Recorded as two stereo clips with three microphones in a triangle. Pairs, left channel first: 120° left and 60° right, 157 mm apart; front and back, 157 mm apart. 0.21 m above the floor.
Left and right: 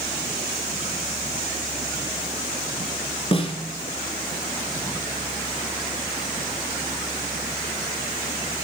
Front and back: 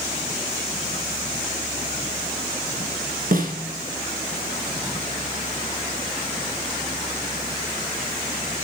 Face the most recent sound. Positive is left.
turn(degrees=170)